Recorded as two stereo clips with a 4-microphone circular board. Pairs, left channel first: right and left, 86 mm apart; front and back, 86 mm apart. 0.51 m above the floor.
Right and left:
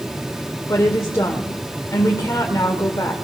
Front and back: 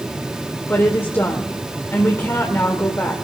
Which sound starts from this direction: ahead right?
A woman speaking, at 0.7 s.